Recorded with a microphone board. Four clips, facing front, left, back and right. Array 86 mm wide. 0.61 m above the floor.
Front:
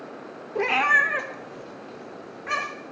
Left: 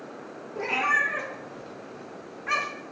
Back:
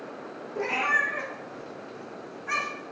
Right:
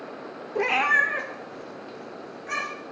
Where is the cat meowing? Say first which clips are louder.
Right 3 dB, front 5 dB; 50° right, 0.6 m; by 2.7 s 30° left, 1.5 m.